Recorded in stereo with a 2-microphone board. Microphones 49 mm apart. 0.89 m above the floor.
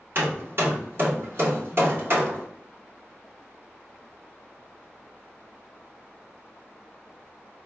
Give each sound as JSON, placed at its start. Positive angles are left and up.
{"t": 0.1, "sound": "hammering", "side_deg": -55, "distance_m": 1.5}